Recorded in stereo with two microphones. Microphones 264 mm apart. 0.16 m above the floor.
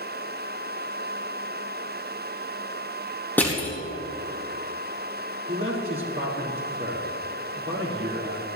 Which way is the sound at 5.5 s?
50° right (ahead or behind).